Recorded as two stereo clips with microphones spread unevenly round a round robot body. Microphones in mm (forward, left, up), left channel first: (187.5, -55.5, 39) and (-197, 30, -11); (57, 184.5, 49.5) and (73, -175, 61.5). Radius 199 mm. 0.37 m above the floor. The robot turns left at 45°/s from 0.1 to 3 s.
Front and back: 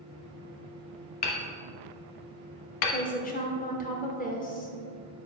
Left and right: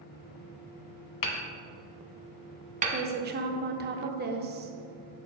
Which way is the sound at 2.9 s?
65° right.